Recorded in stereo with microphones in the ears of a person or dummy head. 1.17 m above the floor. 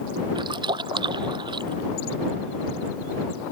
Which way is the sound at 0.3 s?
20° right (ahead or behind).